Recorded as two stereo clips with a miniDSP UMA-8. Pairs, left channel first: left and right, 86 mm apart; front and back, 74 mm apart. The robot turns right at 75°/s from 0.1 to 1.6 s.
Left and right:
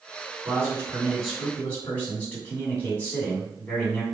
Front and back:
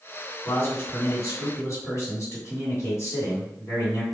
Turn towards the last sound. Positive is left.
turn(degrees=25)